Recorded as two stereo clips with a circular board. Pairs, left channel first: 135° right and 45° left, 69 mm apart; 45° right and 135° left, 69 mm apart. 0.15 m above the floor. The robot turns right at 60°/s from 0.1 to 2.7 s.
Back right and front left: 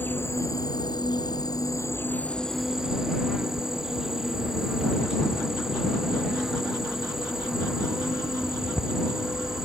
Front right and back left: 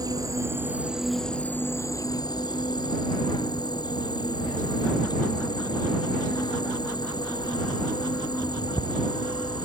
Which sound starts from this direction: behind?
An insect, at 0.0 s.